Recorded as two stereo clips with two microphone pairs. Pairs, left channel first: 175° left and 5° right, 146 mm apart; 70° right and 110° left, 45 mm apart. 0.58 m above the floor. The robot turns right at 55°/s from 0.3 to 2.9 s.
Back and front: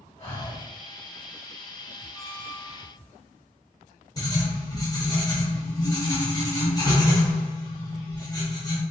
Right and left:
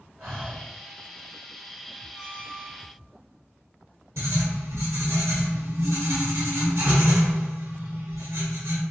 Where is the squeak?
55° left, 1.5 m; by 2.9 s 95° left, 1.5 m.